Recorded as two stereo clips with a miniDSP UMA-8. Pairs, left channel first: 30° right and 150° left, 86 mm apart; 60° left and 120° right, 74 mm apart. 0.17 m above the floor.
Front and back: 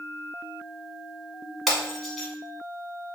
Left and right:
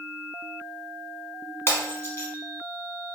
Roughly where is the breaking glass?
Ahead left.